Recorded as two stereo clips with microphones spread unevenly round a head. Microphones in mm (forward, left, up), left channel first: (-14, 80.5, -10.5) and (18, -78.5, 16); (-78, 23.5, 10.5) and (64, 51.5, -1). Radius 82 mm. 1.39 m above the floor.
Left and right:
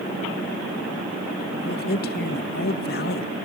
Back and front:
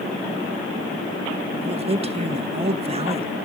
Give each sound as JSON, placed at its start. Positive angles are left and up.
{"t": 1.6, "sound": "a man speaking", "azimuth_deg": 65, "distance_m": 1.3}